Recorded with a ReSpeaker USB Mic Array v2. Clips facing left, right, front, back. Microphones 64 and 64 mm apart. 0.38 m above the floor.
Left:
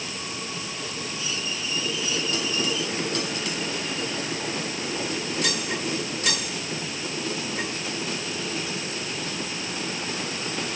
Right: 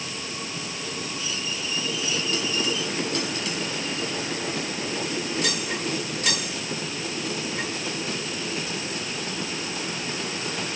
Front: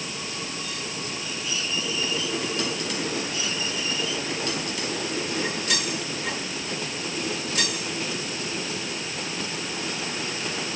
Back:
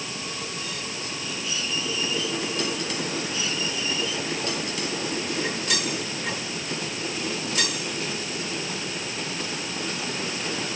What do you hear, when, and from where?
Only background noise.